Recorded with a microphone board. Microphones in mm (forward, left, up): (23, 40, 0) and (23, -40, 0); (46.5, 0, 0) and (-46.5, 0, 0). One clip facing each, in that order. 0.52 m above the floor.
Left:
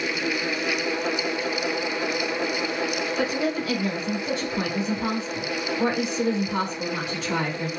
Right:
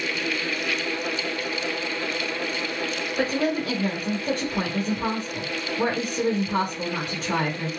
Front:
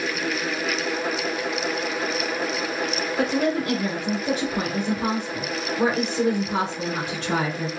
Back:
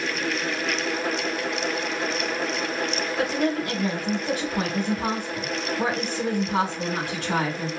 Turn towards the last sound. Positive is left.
turn(degrees=-55)